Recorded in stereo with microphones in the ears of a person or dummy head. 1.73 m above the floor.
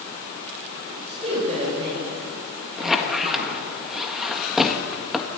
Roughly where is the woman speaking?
Right.